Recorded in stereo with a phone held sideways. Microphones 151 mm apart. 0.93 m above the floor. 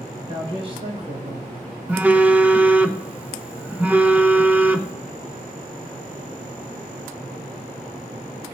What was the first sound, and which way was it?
A man speaking, 35° right (ahead or behind).